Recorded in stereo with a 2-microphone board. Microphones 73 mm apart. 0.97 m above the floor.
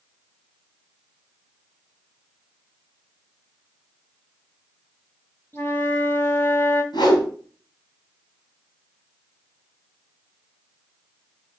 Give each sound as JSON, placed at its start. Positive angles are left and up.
{"t": 5.5, "sound": "a flute", "side_deg": 30, "distance_m": 2.0}
{"t": 6.9, "sound": "a whoosh", "side_deg": 85, "distance_m": 3.5}